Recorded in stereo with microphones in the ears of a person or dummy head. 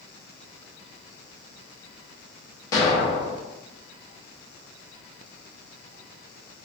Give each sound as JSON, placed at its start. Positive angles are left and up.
{"t": 2.7, "sound": "an explosion", "side_deg": 20, "distance_m": 0.8}